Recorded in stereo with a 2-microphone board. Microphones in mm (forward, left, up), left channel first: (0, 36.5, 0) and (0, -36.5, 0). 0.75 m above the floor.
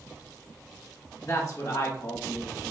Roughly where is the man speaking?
Left.